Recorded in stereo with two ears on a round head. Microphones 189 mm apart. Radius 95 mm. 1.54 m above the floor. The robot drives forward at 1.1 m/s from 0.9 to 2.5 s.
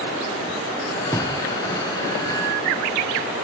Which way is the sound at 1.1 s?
10° left (ahead or behind).